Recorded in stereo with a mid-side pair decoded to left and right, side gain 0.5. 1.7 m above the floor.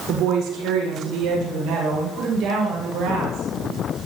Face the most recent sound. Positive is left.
turn(degrees=-65)